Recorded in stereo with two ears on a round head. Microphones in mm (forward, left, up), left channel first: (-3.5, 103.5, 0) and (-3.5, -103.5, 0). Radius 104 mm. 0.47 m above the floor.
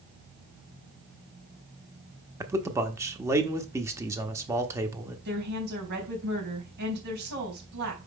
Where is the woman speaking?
50° right (ahead or behind), 4 m.